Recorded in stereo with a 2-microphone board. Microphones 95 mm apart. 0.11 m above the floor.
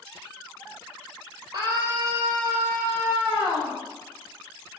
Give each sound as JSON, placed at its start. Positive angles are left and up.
{"t": 1.5, "sound": "a scream", "side_deg": -40, "distance_m": 3.0}